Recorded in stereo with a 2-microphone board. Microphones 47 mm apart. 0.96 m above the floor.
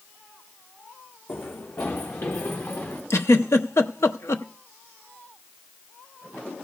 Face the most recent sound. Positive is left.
turn(degrees=70)  # may be behind; listen again after turning